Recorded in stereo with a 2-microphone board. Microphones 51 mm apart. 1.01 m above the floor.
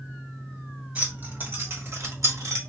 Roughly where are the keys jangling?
Right.